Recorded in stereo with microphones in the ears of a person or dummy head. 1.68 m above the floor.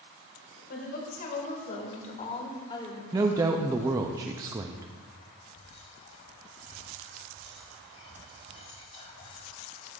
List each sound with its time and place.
0.7 s a woman speaking: 55° left (ahead or behind), 2.5 m; by 3.0 s 20° left (ahead or behind), 1.8 m
3.1 s a woman speaking: 15° right (ahead or behind), 0.5 m
5.5 s whispering: 30° left (ahead or behind), 1.2 m